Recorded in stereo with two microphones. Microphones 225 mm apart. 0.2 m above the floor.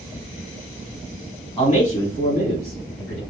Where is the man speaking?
25° left (ahead or behind), 1.5 m; by 3.2 s 50° left (ahead or behind), 1.9 m.